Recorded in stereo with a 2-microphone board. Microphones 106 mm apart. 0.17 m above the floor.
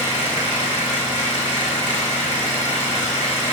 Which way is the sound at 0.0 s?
45° left (ahead or behind).